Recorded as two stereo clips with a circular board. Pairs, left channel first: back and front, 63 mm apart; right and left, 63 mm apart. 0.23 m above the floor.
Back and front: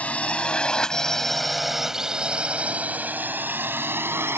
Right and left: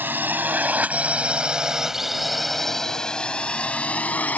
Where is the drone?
125° left; by 4.4 s 35° right.